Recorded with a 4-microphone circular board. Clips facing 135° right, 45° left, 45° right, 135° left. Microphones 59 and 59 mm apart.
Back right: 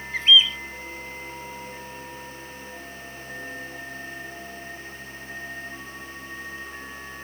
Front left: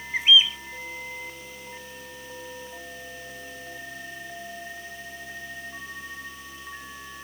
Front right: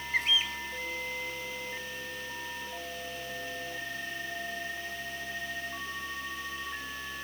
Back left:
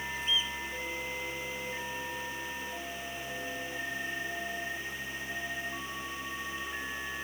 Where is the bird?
30° right.